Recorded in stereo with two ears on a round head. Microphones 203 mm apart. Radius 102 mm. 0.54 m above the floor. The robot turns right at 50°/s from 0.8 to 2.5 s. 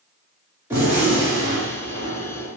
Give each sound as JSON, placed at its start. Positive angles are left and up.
{"t": 0.7, "sound": "a gunshot", "azimuth_deg": -160, "distance_m": 1.5}